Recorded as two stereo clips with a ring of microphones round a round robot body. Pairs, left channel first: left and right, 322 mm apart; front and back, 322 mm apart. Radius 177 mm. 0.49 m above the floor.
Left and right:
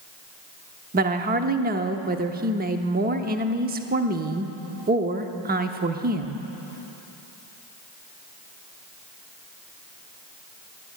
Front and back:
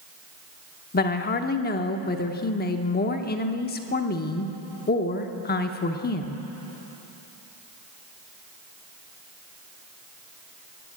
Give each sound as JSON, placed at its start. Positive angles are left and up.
{"t": 0.9, "sound": "a woman speaking", "azimuth_deg": -45, "distance_m": 0.9}